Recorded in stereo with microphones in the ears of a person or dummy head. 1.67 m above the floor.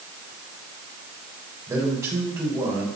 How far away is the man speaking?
About 4.5 m.